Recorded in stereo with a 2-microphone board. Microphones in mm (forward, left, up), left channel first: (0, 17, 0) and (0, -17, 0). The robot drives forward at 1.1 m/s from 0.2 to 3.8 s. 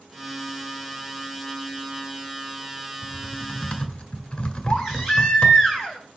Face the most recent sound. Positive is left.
turn(degrees=-10)  # may be behind; listen again after turning